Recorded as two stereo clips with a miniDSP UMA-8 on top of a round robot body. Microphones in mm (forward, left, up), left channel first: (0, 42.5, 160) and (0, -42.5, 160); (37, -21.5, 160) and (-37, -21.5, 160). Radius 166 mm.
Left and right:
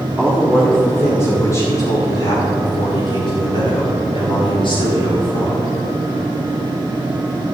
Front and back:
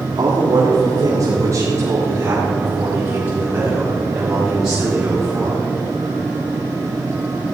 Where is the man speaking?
170° left, 2.5 m; by 5.7 s 95° left, 5 m.